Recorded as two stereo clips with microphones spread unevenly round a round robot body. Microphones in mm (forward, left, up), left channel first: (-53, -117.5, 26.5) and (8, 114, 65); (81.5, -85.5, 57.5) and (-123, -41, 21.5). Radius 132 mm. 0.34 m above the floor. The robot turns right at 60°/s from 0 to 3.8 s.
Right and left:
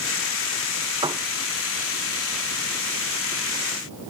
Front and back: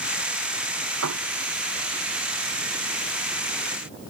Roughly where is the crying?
I don't hear crying.